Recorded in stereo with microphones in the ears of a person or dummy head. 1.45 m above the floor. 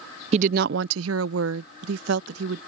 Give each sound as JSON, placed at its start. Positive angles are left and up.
{"t": 0.3, "sound": "a woman speaking", "side_deg": -40}